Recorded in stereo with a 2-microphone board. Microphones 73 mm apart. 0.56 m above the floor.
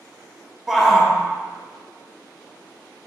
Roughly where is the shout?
Centre.